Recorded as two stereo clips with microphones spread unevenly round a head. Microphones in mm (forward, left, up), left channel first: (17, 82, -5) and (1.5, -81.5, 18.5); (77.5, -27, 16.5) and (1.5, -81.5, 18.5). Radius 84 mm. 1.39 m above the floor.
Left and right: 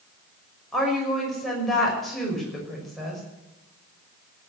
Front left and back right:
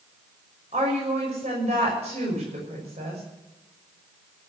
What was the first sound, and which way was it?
A woman speaking, 175° left.